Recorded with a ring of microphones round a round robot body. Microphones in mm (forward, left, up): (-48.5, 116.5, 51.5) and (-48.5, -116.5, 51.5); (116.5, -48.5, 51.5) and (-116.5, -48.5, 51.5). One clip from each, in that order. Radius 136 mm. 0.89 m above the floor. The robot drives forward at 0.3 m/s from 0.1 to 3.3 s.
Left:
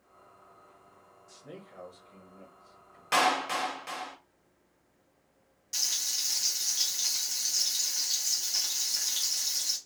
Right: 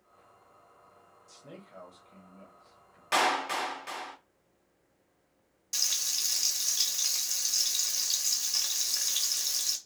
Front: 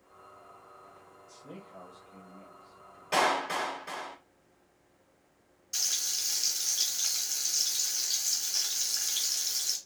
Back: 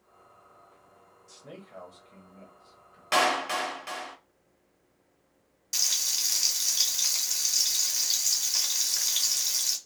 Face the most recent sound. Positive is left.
turn(degrees=-160)